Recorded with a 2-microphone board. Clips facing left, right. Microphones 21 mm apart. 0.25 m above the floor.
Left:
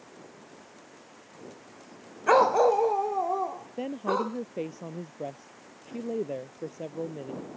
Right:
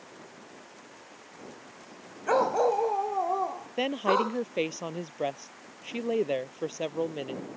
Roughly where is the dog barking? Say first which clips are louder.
Left 4 dB; left.